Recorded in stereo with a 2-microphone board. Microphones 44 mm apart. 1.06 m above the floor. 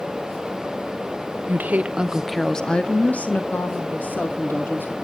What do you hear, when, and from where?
1.5 s a woman speaking: 45° right (ahead or behind), 0.7 m; by 4.9 s 50° left (ahead or behind), 2 m